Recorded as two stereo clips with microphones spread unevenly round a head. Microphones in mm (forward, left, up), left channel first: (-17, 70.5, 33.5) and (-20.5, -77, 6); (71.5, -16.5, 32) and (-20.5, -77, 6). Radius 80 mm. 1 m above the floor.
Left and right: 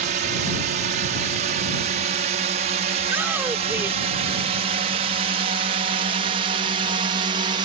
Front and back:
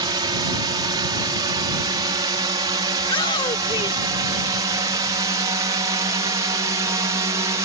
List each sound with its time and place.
0.0 s a drone: 105° right; by 7.7 s 120° right
3.0 s a shout: 15° right